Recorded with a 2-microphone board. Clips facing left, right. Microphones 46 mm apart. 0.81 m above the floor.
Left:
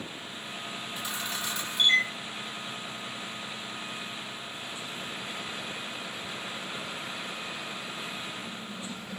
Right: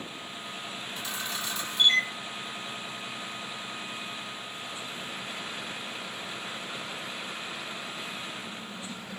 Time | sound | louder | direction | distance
1.0 | a camera shutter | even | 20° left (ahead or behind) | 1.6 m